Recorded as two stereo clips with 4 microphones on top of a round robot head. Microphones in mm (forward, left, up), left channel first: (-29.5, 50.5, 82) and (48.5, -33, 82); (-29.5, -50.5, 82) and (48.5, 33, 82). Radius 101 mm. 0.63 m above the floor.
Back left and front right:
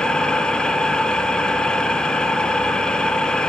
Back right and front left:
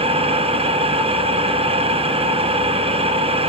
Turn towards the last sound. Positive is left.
turn(degrees=50)